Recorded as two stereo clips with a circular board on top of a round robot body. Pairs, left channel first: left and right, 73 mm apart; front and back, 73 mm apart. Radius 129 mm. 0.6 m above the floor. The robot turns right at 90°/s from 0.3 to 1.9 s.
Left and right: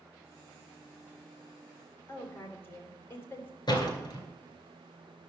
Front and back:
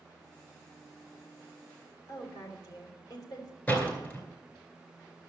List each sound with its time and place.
2.1 s a woman speaking: 30° left, 3 m
3.7 s a door slam: 65° left, 3 m